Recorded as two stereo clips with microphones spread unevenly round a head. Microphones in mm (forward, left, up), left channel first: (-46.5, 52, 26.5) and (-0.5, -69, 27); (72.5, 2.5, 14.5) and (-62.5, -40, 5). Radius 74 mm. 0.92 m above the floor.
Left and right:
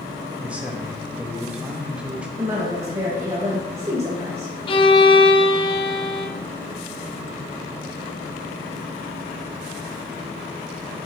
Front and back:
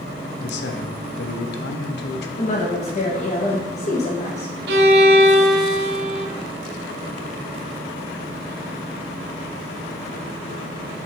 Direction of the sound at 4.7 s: 165° left.